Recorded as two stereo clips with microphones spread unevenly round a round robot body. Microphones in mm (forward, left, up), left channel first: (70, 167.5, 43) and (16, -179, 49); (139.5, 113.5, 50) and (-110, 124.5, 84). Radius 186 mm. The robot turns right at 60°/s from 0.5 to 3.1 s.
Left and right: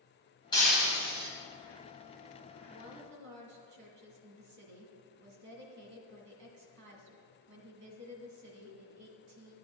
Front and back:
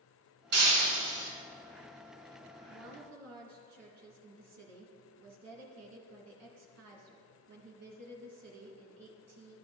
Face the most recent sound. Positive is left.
turn(degrees=-135)